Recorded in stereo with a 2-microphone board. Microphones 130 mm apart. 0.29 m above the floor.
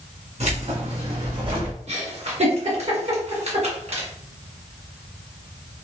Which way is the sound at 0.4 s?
65° right (ahead or behind).